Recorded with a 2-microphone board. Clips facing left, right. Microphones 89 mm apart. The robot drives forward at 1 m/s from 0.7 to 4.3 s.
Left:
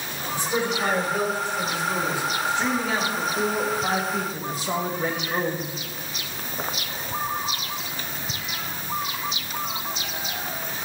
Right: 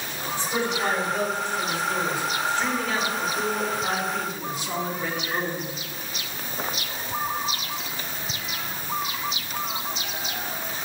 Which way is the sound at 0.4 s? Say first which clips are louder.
Left 1 dB; 15° left (ahead or behind).